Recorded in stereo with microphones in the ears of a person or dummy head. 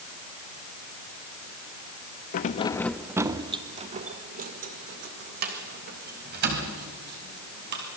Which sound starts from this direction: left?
Keys jangling, at 2.3 s.